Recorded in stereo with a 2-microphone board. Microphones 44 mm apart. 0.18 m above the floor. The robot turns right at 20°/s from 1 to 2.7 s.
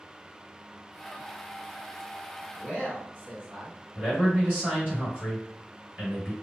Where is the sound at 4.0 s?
35° right (ahead or behind), 1.9 m.